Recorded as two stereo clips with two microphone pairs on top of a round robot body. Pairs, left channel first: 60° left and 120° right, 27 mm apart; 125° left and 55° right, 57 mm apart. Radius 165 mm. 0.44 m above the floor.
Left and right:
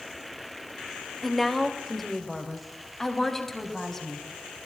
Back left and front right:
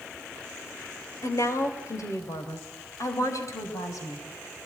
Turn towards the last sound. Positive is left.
turn(degrees=130)